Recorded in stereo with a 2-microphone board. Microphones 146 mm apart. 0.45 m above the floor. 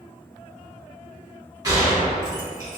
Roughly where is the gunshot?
Right.